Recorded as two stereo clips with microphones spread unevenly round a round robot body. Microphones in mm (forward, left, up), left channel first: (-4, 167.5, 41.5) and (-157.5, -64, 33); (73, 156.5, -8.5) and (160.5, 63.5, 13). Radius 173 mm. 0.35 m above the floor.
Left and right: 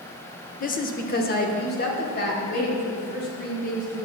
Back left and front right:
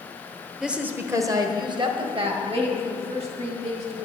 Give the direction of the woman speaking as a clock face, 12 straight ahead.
10 o'clock.